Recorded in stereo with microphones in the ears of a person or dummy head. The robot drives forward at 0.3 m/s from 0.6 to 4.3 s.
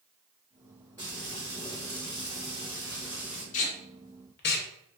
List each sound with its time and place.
1.0 s frying: 10° left (ahead or behind), 1.0 m
3.5 s tape being pulled: 40° left (ahead or behind), 0.5 m; by 4.7 s 50° left (ahead or behind), 0.5 m